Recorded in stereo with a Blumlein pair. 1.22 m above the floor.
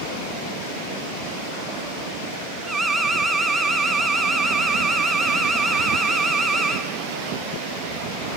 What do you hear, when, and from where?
2.7 s an alarm: 5° right, 1.0 m